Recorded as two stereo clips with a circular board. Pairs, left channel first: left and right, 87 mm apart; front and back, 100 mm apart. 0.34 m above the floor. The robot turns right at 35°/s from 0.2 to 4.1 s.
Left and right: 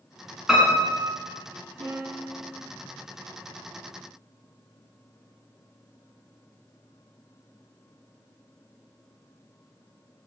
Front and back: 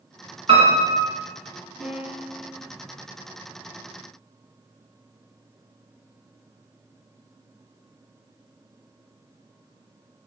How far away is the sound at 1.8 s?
About 3 m.